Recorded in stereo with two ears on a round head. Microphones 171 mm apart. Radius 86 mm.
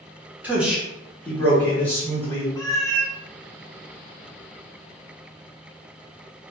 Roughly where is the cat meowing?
Centre.